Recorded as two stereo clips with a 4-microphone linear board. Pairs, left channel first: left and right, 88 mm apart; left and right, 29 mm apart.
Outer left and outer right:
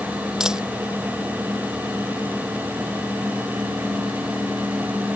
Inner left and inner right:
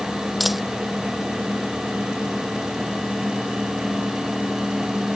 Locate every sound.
0.4 s a dropped coin: 5° right (ahead or behind)